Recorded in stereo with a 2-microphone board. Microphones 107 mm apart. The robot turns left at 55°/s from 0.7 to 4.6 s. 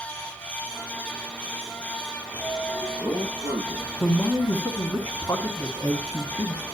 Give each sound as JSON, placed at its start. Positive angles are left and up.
{"t": 2.2, "sound": "a sliding door", "azimuth_deg": -170, "distance_m": 5.0}
{"t": 4.0, "sound": "a man speaking", "side_deg": 15, "distance_m": 1.5}